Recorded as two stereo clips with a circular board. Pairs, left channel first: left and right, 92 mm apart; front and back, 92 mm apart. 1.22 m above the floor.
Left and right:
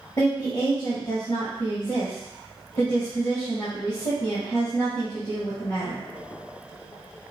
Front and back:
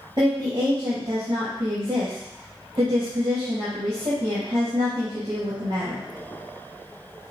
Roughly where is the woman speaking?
Behind left.